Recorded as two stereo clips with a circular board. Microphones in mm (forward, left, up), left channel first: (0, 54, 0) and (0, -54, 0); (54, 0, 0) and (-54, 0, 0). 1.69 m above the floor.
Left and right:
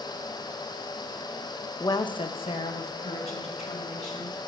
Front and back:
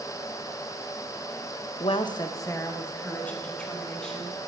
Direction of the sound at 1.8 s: 30° left.